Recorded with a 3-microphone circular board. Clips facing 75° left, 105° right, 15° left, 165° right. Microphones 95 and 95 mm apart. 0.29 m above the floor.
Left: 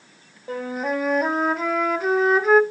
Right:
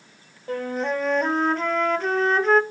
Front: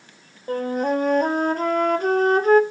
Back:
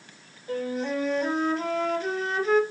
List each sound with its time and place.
0.5 s a flute: 10° right, 0.5 m